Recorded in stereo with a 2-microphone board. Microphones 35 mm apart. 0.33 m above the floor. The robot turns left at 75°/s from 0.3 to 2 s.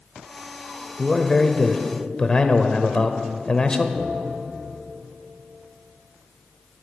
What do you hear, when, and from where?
1.0 s a man speaking: 5° left (ahead or behind), 1.1 m; by 3.9 s 25° left (ahead or behind), 1.1 m
4.0 s a bell: 55° right (ahead or behind), 3 m